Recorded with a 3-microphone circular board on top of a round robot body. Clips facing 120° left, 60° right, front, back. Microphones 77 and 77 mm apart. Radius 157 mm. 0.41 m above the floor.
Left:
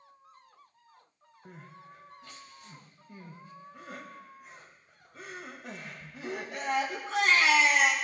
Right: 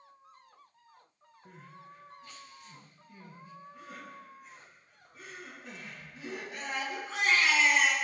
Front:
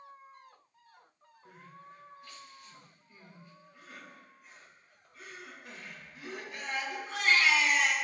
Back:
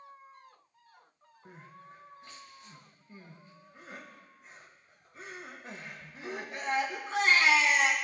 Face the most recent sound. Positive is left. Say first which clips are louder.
# left 1 dB, back 1 dB
turn(degrees=120)